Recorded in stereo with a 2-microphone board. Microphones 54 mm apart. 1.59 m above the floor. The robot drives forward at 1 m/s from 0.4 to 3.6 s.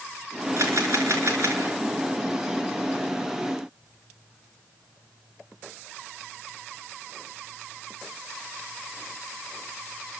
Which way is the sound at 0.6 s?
65° right (ahead or behind).